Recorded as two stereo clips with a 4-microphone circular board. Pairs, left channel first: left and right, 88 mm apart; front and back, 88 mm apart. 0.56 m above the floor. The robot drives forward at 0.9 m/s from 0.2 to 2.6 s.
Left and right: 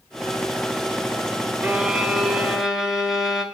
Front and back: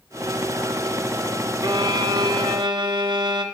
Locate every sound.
1.6 s a violin: 165° right, 0.6 m; by 3.4 s 175° right, 1.4 m